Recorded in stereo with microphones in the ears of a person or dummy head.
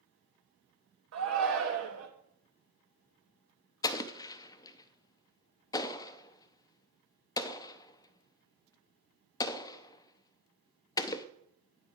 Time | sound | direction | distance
1.1 | a shout | 75° right (ahead or behind) | 1.7 m
3.8 | an explosion | 15° left (ahead or behind) | 0.6 m